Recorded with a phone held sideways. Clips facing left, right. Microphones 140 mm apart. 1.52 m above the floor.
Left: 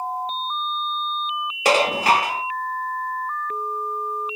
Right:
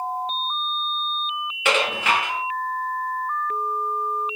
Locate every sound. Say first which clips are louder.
1.6 s dishes clattering: left 5 dB; 35° left (ahead or behind), 1.0 m